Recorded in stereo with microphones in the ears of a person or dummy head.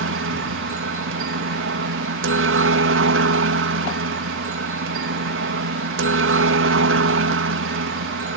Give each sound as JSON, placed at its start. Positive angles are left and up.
{"t": 0.0, "sound": "a helicopter", "side_deg": -60}